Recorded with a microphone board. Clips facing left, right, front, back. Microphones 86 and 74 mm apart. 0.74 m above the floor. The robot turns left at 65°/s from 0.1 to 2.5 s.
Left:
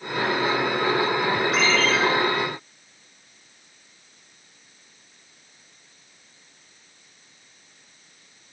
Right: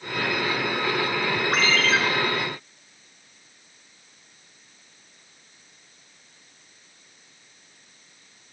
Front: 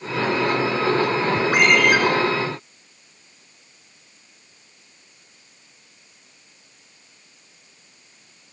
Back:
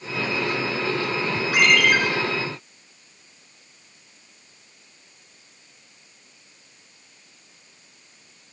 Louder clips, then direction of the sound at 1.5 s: Right 2 dB, front 1 dB; 45° right.